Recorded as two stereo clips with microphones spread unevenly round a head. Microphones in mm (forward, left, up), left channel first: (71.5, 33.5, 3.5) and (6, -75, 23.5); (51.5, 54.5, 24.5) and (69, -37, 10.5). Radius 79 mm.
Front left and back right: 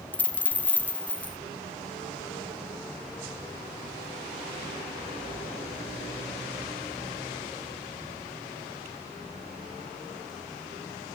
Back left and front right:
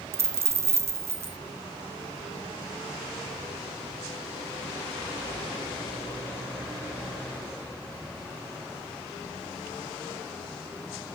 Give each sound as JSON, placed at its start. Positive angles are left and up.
{"t": 0.1, "sound": "a dropped coin", "azimuth_deg": -25, "distance_m": 0.6}